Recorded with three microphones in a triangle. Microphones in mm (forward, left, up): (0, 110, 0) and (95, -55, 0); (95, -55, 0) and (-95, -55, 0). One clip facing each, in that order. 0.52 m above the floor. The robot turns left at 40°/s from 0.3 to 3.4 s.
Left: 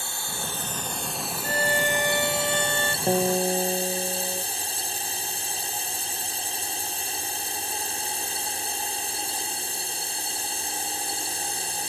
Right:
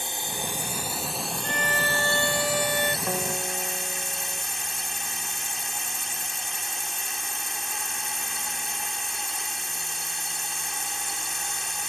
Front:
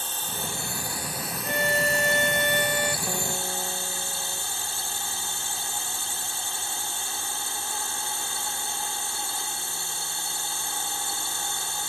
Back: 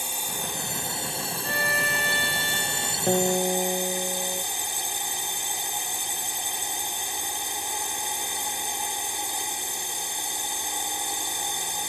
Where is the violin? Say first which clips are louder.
Left 5 dB, front 6 dB; 70° left; by 3.0 s 10° left.